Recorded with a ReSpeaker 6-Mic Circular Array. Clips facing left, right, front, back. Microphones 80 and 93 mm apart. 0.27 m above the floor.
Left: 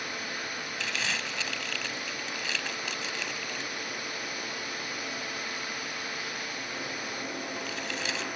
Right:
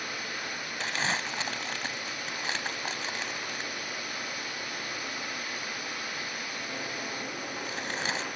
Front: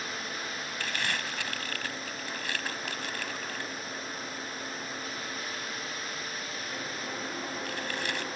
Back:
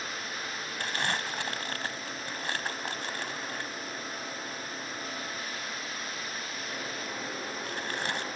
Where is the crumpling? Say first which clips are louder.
Right 4 dB, back 3 dB; 130° right.